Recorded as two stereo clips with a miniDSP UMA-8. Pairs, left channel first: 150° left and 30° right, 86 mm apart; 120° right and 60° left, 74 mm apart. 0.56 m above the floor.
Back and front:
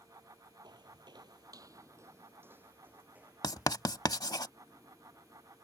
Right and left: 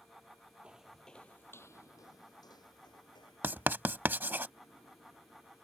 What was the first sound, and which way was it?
Footsteps, 15° right.